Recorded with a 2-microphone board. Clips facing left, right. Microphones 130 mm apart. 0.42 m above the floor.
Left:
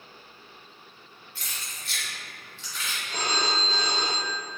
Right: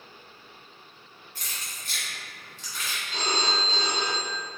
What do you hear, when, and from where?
1.4 s keys jangling: 40° right (ahead or behind), 0.9 m
3.1 s a phone ringing: 45° left (ahead or behind), 0.6 m